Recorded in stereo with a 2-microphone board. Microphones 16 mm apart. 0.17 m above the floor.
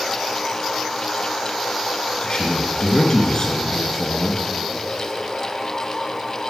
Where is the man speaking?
50° left (ahead or behind), 2.5 m.